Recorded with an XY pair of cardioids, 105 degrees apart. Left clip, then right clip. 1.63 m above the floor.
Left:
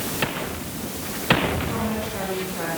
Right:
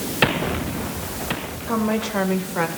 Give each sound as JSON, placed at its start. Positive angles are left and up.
{"t": 1.7, "sound": "a woman speaking", "azimuth_deg": -70, "distance_m": 6.5}